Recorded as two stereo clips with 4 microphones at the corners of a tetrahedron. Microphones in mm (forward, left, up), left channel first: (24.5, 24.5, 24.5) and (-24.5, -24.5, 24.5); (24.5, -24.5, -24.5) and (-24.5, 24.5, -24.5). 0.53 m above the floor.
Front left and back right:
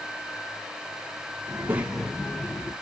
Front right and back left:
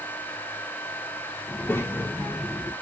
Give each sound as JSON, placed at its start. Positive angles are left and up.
{"t": 1.5, "sound": "a child speaking", "azimuth_deg": -100, "distance_m": 0.9}